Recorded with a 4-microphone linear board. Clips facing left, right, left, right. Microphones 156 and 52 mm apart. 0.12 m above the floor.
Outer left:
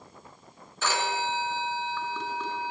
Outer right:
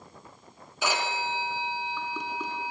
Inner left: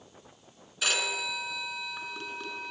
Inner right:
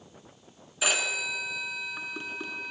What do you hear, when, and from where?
0.8 s a phone ringing: 15° right (ahead or behind), 0.6 m